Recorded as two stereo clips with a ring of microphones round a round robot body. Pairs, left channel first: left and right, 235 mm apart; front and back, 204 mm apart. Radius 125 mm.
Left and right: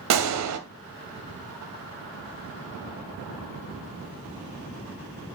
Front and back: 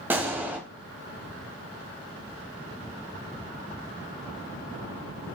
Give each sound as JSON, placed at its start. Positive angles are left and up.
{"t": 0.1, "sound": "a gunshot", "azimuth_deg": -100, "distance_m": 1.0}